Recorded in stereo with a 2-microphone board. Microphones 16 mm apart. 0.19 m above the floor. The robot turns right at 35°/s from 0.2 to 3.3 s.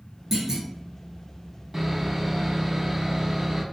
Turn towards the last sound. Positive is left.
turn(degrees=-25)  # may be behind; listen again after turning